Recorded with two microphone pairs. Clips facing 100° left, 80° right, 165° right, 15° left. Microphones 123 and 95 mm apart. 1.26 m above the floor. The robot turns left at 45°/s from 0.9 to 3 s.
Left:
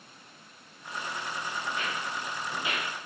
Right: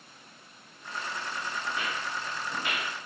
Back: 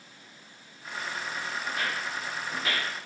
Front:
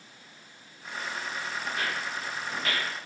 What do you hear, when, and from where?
1.6 s footsteps: 110° right, 1.7 m; by 2.9 s 65° left, 1.3 m